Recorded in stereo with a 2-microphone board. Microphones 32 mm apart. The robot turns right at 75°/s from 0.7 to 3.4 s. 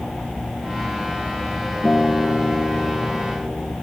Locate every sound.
1.8 s a guitar: 35° left; by 3.7 s 150° left